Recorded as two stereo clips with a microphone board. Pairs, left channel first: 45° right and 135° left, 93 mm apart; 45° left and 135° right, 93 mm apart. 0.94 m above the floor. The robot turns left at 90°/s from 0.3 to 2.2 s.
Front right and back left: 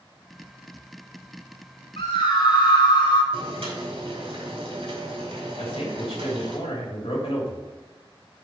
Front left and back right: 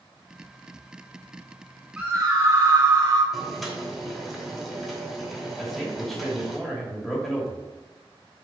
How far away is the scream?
About 3.5 m.